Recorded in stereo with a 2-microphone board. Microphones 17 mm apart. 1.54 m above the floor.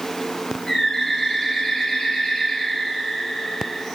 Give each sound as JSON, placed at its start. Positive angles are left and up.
{"t": 0.7, "sound": "a bird", "side_deg": 40, "distance_m": 1.4}